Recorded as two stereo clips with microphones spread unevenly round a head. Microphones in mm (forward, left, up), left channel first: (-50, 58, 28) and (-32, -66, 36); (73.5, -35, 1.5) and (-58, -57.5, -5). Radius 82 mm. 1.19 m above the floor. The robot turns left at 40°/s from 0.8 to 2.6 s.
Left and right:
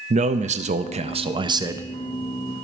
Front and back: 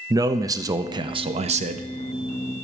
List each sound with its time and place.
0.1 s a man speaking: 110° right, 0.6 m; by 1.9 s 155° right, 0.6 m